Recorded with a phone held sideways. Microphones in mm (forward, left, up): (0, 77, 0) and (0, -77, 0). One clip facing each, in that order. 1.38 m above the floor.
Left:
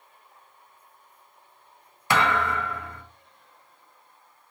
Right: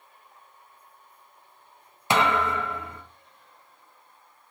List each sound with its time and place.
2.1 s a thud: 20° right (ahead or behind), 0.7 m